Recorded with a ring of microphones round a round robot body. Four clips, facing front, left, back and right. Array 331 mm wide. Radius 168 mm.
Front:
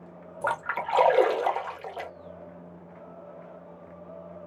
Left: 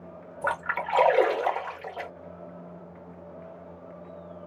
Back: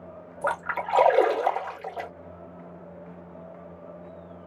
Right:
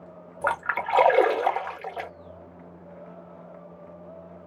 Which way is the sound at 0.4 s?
75° right.